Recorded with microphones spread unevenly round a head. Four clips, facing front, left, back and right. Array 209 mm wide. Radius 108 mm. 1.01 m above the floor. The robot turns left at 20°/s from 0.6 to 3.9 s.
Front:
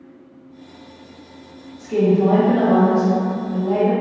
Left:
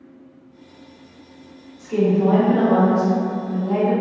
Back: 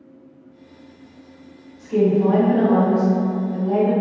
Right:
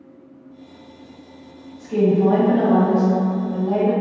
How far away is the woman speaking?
About 1.4 m.